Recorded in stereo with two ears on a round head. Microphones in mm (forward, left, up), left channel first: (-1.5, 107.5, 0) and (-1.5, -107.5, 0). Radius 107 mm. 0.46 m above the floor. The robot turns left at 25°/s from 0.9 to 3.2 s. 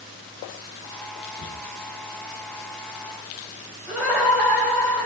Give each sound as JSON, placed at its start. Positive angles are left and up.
{"t": 1.4, "sound": "a cupboard door", "side_deg": 50, "distance_m": 2.0}
{"t": 3.9, "sound": "laughter", "side_deg": -5, "distance_m": 3.0}